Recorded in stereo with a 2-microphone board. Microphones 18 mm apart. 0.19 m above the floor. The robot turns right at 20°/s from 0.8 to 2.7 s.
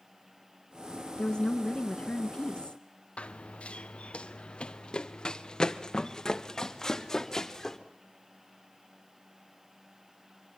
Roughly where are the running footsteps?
Left.